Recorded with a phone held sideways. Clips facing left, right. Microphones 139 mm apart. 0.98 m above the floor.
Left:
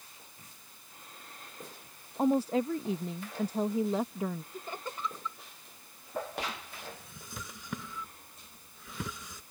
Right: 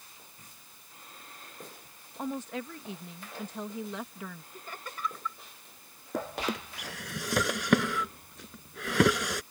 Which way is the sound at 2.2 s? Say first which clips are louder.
Left 9 dB; 35° left (ahead or behind).